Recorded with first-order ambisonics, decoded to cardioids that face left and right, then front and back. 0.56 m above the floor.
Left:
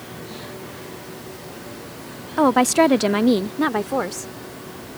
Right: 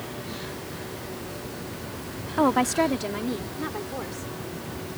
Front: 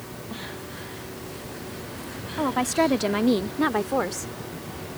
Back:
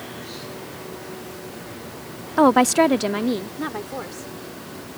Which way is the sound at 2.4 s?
160° left.